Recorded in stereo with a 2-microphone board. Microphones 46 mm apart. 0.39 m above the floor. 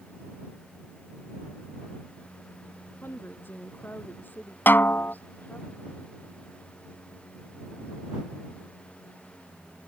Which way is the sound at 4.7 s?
50° left (ahead or behind).